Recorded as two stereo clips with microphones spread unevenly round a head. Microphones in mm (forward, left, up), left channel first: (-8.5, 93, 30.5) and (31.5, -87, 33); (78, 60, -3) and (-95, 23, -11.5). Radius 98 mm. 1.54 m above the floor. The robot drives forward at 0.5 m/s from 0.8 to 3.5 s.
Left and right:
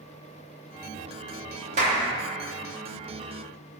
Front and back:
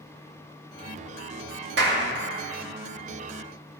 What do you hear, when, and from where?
1.8 s a clap: 135° right, 1.8 m